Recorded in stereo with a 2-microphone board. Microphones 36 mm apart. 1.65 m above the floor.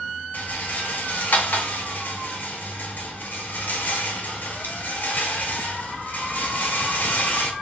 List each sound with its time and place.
0.3 s a rattle: 55° left (ahead or behind), 0.5 m